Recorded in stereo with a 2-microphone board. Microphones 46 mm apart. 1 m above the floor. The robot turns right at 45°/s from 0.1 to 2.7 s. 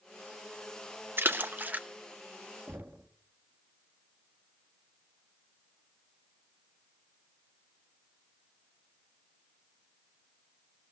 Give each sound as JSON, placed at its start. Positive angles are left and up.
{"t": 1.2, "sound": "a splash", "side_deg": -60, "distance_m": 1.2}
{"t": 2.7, "sound": "knocking", "side_deg": -50, "distance_m": 1.4}